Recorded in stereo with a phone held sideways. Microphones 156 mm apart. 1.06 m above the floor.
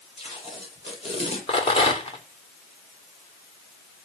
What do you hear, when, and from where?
0.2 s tape being pulled: 40° left (ahead or behind), 8.5 m
1.5 s a rattle: 40° left (ahead or behind), 3 m